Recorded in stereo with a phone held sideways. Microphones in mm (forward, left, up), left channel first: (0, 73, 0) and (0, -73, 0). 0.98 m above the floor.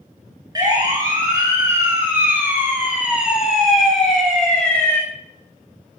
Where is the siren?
25° right (ahead or behind), 6.5 m; by 5.0 s 10° left (ahead or behind), 5 m.